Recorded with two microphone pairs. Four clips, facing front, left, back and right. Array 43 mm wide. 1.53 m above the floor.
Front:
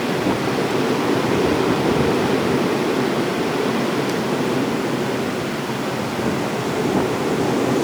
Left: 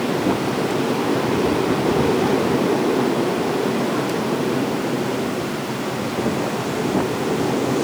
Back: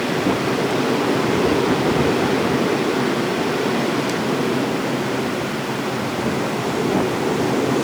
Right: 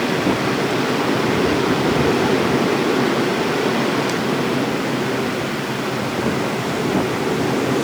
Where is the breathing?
I don't hear breathing.